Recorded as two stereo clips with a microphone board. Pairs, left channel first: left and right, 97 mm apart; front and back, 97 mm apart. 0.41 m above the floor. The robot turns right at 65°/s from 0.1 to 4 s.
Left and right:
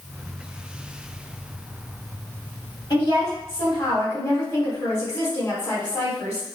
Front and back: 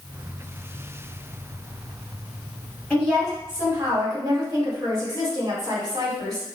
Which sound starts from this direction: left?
A woman speaking, at 2.9 s.